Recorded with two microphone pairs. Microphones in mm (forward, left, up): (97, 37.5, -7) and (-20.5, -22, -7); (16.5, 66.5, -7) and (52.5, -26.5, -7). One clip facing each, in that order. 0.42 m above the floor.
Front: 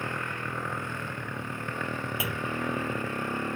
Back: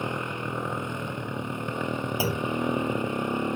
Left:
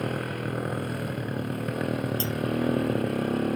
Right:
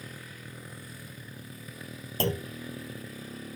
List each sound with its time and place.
0.0 s a motorcycle: 135° left
2.2 s a clunk: 95° right